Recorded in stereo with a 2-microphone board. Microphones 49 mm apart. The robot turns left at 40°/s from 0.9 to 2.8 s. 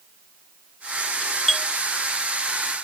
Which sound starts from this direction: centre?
A doorbell, at 1.2 s.